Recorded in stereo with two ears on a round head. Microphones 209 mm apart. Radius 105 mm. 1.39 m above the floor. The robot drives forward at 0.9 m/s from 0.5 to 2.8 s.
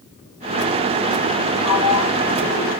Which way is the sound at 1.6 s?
65° left (ahead or behind).